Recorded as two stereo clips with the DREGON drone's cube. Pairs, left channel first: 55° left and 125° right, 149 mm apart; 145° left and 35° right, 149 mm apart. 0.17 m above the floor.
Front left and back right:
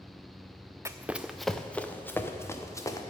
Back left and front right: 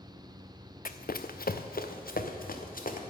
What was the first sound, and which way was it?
Running footsteps, 165° left.